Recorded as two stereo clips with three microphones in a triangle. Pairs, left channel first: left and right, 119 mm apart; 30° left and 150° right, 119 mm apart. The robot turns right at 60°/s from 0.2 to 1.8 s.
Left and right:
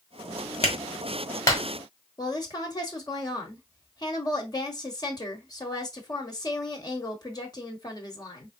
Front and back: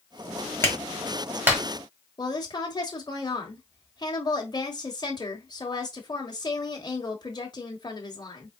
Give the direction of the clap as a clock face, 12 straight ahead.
9 o'clock.